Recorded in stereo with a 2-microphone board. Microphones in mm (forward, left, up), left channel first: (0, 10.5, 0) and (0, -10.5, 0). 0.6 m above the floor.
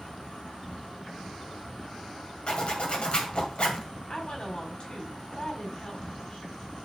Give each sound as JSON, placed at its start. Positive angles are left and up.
{"t": 0.0, "sound": "an insect", "side_deg": 60, "distance_m": 4.5}
{"t": 2.5, "sound": "a zipper", "side_deg": 55, "distance_m": 2.0}
{"t": 4.1, "sound": "a woman speaking", "side_deg": 50, "distance_m": 4.0}